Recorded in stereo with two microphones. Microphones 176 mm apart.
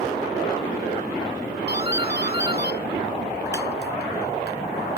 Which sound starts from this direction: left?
A doorbell, at 1.7 s.